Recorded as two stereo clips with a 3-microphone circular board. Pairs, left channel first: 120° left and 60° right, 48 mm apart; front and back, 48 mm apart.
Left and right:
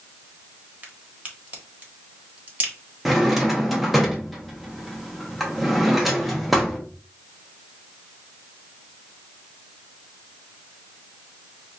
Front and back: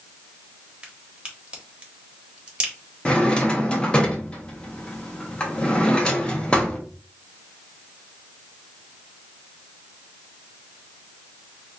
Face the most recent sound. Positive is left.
turn(degrees=25)